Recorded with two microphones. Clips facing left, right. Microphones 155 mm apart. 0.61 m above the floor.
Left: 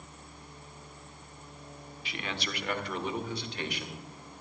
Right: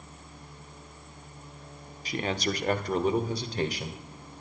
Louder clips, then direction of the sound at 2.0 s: Right 8 dB; 40° right (ahead or behind).